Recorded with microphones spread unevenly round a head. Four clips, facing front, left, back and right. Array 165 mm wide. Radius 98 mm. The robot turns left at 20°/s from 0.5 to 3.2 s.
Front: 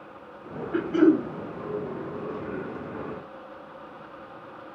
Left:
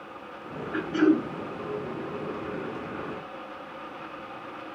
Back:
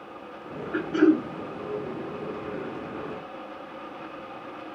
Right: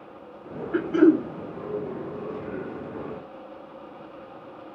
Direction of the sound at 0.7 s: 95° right.